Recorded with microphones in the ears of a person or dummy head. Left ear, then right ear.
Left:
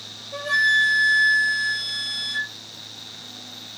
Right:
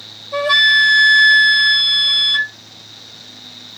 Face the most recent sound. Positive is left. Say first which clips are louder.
# right 7 dB
turn(degrees=-55)  # may be behind; listen again after turning